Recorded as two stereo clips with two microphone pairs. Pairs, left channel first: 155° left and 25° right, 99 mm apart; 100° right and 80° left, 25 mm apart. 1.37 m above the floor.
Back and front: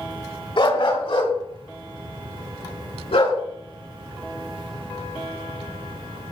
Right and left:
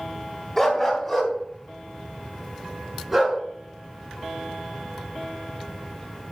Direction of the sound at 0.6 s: Straight behind.